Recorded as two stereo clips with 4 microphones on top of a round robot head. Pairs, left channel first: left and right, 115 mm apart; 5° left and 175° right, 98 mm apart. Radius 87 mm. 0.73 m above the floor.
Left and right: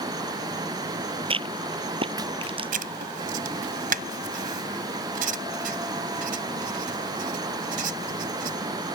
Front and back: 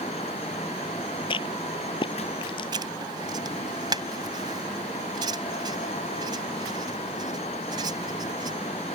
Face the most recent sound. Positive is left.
turn(degrees=-115)